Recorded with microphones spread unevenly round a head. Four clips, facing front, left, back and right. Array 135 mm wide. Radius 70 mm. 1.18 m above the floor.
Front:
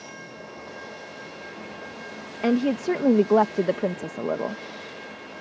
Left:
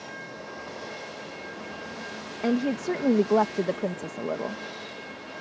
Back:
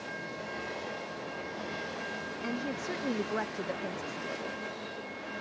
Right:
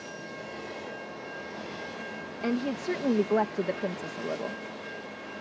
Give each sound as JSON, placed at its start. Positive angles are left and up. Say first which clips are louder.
{"t": 2.4, "sound": "a woman speaking", "louder": "left 4 dB, front 15 dB", "azimuth_deg": 10}